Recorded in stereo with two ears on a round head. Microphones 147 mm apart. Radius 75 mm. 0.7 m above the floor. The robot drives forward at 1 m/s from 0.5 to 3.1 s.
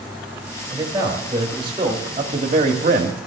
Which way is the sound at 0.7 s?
20° right (ahead or behind).